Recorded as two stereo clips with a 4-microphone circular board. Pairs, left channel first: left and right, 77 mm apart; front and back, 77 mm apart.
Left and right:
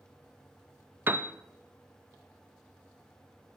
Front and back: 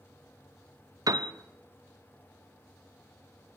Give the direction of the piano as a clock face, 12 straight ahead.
5 o'clock.